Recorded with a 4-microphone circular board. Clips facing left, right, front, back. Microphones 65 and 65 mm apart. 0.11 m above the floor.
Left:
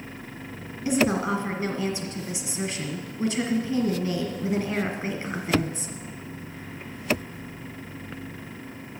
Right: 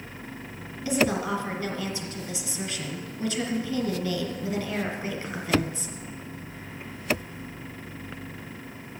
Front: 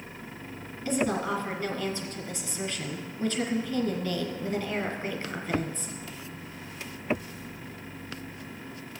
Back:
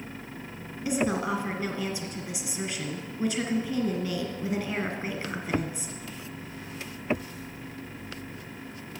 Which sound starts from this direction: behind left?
A woman speaking, at 0.8 s.